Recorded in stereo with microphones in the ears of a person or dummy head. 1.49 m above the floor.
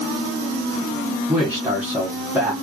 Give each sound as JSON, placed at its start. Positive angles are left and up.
{"t": 1.3, "sound": "a man speaking", "side_deg": -10, "distance_m": 1.5}